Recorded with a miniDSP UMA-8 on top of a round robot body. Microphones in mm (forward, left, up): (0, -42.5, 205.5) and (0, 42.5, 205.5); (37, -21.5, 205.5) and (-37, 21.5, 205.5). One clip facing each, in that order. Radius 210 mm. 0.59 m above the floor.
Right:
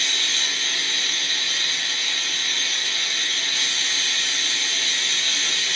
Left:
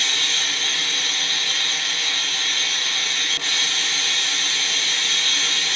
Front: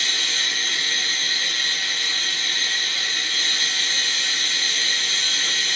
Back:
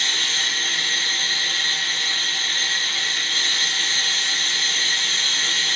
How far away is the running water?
About 1.0 m.